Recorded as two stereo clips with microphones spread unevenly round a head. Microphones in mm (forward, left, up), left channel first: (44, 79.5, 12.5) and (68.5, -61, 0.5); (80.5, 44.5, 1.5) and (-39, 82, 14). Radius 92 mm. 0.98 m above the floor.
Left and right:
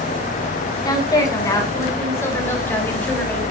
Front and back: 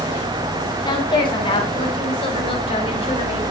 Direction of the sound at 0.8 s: 35° left.